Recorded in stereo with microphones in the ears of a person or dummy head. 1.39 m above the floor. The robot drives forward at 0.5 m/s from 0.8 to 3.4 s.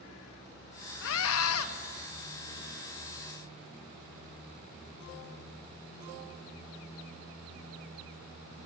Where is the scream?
75° left (ahead or behind), 1.5 m; by 1.7 s 85° left, 1.5 m.